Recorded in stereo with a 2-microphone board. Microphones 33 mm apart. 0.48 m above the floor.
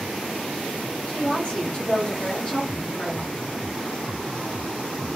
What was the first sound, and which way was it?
A woman speaking, 40° left (ahead or behind).